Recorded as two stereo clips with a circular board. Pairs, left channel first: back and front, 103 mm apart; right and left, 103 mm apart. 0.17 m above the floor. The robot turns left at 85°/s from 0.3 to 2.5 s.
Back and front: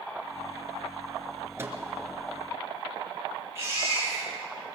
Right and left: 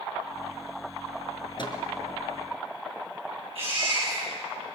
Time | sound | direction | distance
1.6 | a microwave | 60° right | 2.5 m
3.5 | a baby crying | 65° left | 8.5 m